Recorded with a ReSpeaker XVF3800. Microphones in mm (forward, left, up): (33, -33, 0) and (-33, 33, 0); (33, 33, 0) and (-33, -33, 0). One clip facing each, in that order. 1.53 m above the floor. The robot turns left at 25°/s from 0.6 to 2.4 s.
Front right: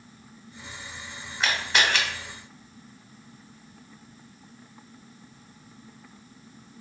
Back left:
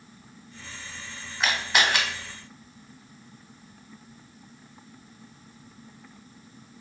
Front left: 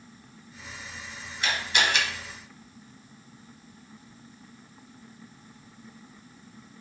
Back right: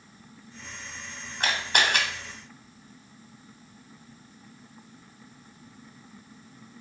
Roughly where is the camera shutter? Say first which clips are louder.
Back left 1 dB, back right 1 dB; behind right.